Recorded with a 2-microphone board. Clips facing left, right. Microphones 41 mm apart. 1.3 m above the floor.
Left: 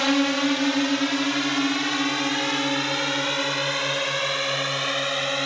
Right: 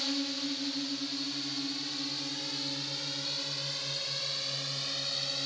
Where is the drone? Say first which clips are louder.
Left 14 dB; 75° left (ahead or behind); by 5.5 s 55° left (ahead or behind).